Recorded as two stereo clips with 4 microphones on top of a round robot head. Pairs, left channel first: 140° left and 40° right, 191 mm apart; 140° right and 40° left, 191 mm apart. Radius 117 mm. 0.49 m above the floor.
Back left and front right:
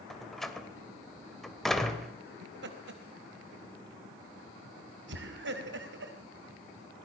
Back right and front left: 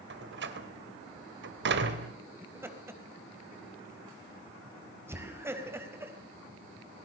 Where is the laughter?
40° right, 4 m.